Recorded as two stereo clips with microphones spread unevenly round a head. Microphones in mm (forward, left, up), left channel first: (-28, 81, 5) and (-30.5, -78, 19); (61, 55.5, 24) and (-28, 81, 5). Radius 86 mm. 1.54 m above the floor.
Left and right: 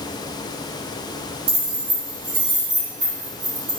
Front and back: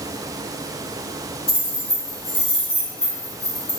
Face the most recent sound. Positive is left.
turn(degrees=-65)